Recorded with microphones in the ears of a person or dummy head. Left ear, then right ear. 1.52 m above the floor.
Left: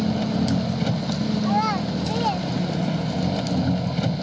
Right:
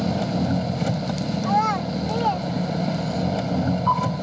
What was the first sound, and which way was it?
An engine running, 15° right (ahead or behind).